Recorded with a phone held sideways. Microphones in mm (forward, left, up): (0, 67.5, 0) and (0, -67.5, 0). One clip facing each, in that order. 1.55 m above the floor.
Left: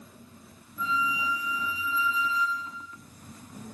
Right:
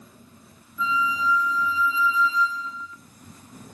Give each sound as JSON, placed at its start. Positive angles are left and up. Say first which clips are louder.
{"t": 0.8, "sound": "a flute", "louder": "right 4 dB", "side_deg": 55, "distance_m": 1.0}